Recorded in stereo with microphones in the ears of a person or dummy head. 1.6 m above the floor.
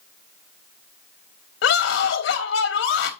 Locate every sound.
1.6 s a scream: 80° left, 3.5 m